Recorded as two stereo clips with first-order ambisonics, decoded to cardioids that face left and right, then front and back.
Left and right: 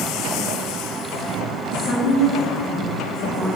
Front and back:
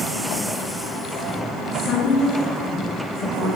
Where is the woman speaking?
65° left, 1.5 m; by 3.6 s 15° left, 1.2 m.